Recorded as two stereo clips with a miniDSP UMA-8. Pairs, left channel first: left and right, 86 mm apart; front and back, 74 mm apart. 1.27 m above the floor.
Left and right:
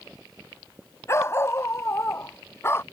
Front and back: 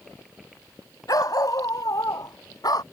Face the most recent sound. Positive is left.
turn(degrees=30)